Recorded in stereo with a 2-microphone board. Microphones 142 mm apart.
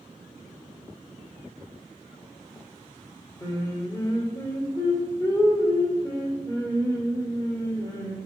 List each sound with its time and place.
3.4 s singing: 20° left (ahead or behind), 2 m